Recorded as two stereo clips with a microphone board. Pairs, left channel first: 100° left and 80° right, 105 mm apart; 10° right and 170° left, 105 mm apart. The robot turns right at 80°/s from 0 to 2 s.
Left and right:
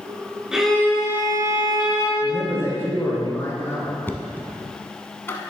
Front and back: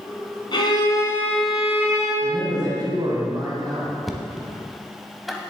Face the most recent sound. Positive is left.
turn(degrees=80)